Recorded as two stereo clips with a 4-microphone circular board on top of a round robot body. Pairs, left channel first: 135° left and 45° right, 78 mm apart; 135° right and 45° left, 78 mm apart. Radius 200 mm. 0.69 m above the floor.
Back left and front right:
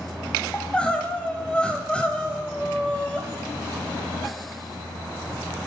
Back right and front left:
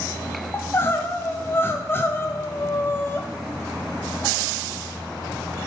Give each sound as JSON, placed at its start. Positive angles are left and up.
{"t": 0.5, "sound": "crying", "azimuth_deg": -160, "distance_m": 1.2}